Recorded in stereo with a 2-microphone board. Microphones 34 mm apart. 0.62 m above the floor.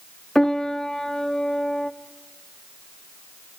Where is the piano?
10° left (ahead or behind), 0.7 m.